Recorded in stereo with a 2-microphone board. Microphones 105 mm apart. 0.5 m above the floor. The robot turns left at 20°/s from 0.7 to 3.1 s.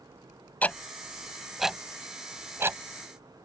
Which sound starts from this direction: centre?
Ticking, at 0.6 s.